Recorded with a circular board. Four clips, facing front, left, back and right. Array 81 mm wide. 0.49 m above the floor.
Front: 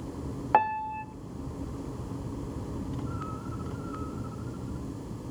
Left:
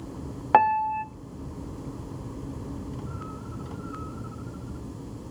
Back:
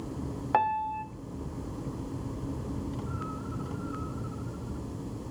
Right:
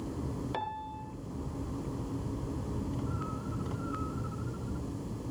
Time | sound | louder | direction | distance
0.5 | a piano | left 17 dB, front 2 dB | 75° left | 0.7 m